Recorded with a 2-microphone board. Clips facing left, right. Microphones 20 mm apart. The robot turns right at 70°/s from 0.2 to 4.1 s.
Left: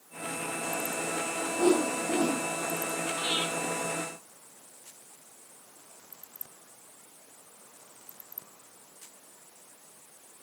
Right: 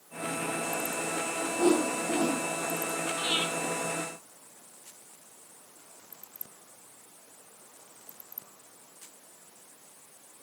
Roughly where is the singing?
No singing in this recording.